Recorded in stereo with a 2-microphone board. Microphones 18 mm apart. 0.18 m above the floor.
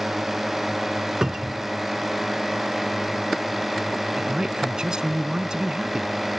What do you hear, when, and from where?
0.0 s a drone: 15° right (ahead or behind); by 6.4 s 10° right (ahead or behind)
1.2 s a cupboard door: 35° right (ahead or behind)
4.2 s a man speaking: 45° right (ahead or behind)